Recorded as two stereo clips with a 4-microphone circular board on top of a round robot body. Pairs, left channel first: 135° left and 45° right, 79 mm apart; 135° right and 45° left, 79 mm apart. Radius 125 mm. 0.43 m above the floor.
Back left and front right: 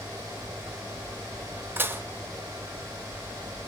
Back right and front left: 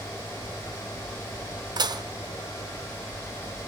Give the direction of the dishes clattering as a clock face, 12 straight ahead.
11 o'clock.